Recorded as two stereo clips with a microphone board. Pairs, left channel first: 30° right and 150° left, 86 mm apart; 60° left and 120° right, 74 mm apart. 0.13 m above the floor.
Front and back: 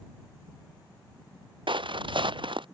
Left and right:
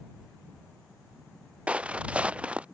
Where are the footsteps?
165° left.